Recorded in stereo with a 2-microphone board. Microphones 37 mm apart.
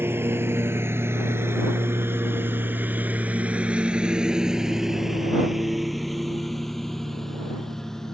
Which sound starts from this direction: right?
A lawn mower, at 0.0 s.